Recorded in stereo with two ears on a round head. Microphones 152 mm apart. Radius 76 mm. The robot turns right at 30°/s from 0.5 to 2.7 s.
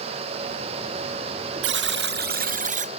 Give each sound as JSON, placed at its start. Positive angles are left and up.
{"t": 1.6, "sound": "a buzzer", "azimuth_deg": -80, "distance_m": 0.5}